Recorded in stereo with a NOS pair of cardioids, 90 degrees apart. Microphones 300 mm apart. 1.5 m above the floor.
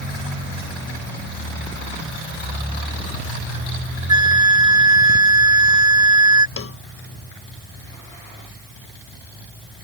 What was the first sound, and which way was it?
A flute, 15° right.